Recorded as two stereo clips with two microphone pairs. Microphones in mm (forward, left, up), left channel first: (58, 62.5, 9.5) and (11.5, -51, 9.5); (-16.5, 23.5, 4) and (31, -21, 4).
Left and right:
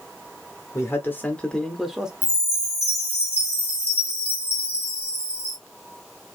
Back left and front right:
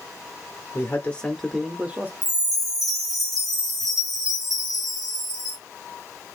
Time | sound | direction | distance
0.7 | a man speaking | 115° left | 0.8 m
2.2 | a chime | 40° left | 1.9 m